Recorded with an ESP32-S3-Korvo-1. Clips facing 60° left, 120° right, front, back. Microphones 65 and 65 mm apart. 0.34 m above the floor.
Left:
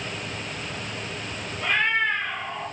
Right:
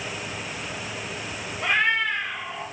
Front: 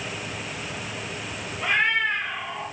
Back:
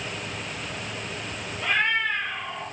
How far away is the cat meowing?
About 0.7 m.